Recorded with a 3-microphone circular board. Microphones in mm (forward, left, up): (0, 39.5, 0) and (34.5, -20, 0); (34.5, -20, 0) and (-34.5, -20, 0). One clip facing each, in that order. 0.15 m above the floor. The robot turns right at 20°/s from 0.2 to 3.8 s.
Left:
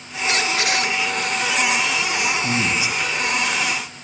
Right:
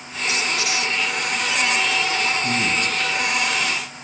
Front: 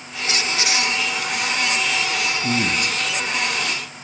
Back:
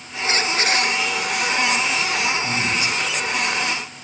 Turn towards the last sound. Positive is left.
turn(degrees=55)